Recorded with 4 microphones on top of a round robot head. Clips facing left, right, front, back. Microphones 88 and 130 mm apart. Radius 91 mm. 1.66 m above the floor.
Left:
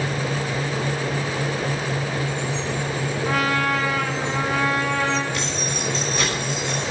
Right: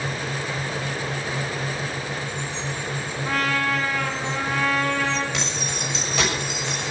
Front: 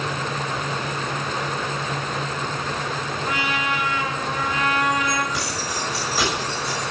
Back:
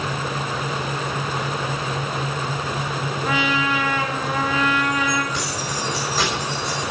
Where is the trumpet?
175° left, 2.5 m.